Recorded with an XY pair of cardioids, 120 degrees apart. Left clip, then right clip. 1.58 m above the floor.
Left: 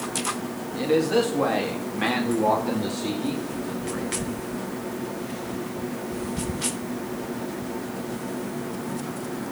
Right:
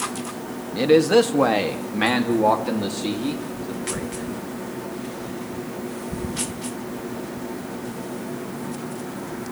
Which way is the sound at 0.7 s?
50° right.